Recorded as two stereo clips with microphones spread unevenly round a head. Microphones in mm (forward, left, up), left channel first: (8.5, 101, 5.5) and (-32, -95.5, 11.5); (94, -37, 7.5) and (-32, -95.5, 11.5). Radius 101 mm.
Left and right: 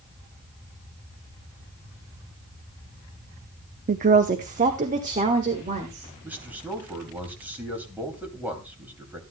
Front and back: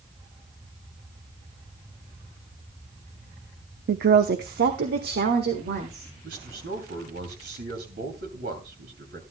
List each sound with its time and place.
3.9 s a woman speaking: 155° right, 0.5 m; by 6.1 s 160° right, 1.8 m
6.2 s a man speaking: 175° left, 2.5 m